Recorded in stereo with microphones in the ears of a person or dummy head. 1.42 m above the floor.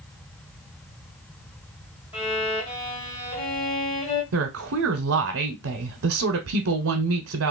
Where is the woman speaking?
65° right (ahead or behind), 0.8 m.